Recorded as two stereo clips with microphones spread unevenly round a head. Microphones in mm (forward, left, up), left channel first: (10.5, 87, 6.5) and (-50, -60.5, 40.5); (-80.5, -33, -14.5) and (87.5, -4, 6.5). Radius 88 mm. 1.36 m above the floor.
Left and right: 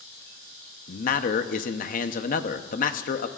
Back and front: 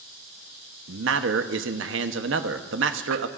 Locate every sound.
0.9 s a man speaking: 35° left, 0.9 m